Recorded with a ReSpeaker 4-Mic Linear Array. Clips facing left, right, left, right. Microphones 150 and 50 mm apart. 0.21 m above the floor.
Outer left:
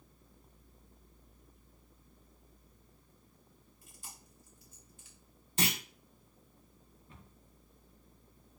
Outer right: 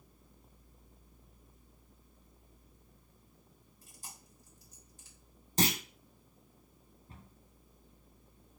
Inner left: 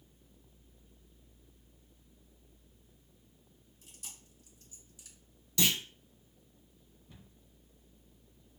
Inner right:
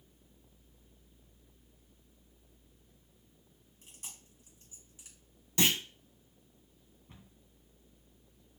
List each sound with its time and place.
3.8 s chewing: 40° right (ahead or behind), 2.5 m
5.6 s a clunk: 40° right (ahead or behind), 0.7 m
7.1 s a cupboard door: 45° right (ahead or behind), 1.5 m